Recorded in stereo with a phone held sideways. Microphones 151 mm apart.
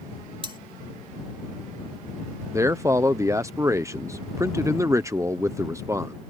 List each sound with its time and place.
0.4 s cutlery clinking: 35° right (ahead or behind)
2.5 s a man speaking: 20° right (ahead or behind)